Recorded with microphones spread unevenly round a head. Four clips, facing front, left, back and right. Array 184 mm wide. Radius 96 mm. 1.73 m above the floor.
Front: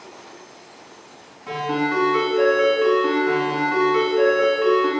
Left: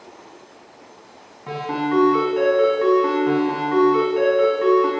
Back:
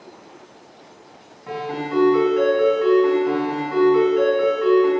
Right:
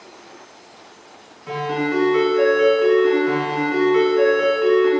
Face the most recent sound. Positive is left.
turn(degrees=70)